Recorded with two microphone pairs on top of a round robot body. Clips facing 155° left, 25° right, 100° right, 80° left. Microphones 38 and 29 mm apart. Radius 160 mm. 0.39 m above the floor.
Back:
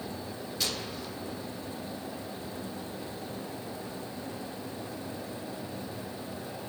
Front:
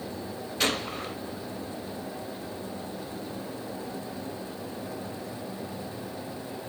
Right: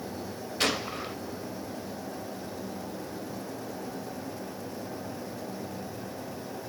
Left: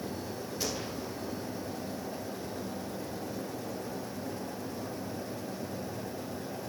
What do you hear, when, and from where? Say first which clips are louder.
0.6 s a gunshot: front 8 dB, right 9 dB; 70° right, 1.9 m